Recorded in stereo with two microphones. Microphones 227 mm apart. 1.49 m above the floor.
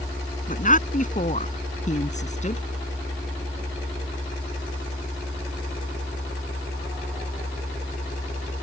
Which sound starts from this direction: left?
A woman speaking, at 0.5 s.